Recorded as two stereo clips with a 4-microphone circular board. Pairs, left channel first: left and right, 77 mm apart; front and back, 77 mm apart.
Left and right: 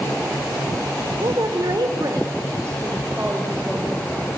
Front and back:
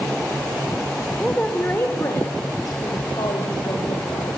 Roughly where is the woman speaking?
Right.